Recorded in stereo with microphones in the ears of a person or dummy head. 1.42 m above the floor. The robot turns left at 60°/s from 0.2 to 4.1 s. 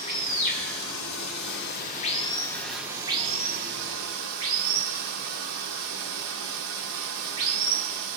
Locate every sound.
0.0 s running water: 150° left, 0.9 m; by 8.2 s 85° right, 0.9 m